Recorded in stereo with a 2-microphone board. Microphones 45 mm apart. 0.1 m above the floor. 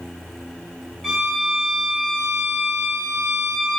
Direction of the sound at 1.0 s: 15° right (ahead or behind).